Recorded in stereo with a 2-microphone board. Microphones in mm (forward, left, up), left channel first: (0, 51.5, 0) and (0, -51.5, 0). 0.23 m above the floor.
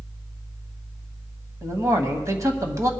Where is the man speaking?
30° right (ahead or behind), 1.3 m.